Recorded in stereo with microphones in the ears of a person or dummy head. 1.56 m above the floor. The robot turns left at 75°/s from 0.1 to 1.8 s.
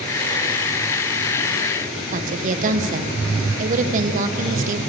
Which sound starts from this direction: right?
A woman speaking, at 2.1 s.